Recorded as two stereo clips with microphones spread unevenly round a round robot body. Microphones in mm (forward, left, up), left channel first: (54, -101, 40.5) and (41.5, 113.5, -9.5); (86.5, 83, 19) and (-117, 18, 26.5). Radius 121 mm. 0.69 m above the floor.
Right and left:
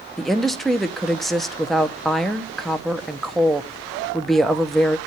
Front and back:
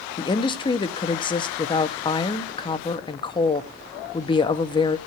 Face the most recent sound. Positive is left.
turn(degrees=30)